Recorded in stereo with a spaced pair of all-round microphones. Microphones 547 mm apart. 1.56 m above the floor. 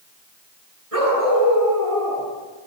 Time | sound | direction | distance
0.9 | a dog barking | 80° right | 10 m